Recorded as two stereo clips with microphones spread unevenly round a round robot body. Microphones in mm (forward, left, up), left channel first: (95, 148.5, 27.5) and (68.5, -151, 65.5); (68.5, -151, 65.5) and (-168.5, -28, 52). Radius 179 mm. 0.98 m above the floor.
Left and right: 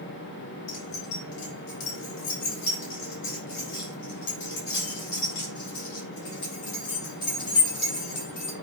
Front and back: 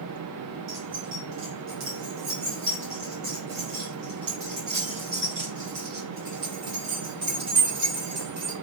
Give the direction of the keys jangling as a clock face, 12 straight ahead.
9 o'clock.